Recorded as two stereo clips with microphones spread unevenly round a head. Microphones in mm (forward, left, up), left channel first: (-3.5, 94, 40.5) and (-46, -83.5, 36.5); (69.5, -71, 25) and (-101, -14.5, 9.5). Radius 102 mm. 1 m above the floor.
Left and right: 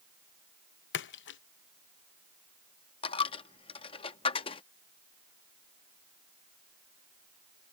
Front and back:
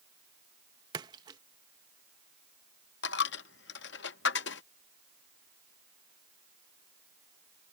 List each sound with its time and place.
0.9 s a splash: 95° left
3.0 s a dropped coin: 15° left